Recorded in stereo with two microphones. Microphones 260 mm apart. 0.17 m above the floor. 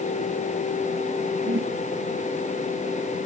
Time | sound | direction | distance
1.4 | a whoosh | 50° right (ahead or behind) | 2.5 m